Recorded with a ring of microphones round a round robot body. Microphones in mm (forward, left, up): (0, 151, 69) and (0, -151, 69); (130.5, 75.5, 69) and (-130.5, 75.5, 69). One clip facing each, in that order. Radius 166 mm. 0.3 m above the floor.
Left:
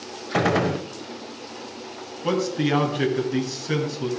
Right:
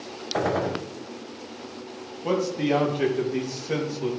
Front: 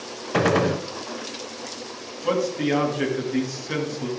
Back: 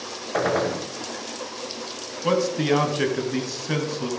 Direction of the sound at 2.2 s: 150° left.